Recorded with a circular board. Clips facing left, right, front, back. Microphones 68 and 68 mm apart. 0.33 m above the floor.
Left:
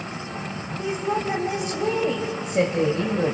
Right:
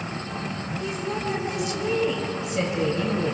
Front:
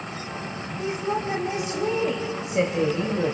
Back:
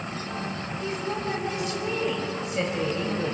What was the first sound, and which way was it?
A woman speaking, 60° left.